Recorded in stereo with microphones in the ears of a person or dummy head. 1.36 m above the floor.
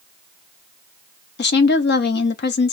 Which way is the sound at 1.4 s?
55° left (ahead or behind).